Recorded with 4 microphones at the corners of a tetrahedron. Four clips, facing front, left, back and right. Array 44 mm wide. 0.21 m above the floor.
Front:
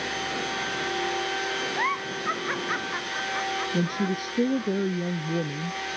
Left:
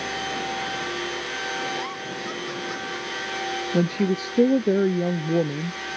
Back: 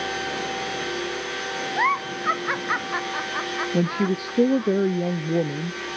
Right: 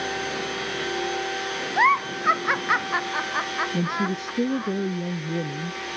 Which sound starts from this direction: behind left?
A woman speaking, at 3.7 s.